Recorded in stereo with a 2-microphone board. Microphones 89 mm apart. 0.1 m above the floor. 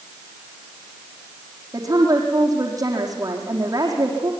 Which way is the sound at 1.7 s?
40° right (ahead or behind).